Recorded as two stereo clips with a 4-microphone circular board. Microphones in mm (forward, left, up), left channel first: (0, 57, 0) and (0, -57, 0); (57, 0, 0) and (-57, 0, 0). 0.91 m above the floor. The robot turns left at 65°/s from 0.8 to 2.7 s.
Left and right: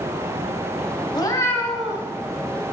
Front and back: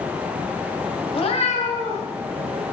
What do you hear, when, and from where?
1.1 s a cat meowing: 40° left, 1.9 m; by 2.0 s 20° right, 1.9 m